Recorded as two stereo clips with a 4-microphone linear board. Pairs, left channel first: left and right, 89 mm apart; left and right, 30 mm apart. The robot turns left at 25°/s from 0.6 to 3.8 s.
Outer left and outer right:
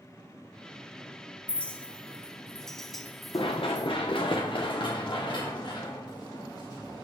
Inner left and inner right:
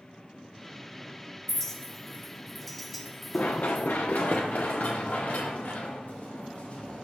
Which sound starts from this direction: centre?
A clink, at 1.5 s.